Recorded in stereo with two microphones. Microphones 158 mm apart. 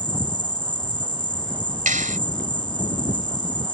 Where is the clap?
55° right (ahead or behind).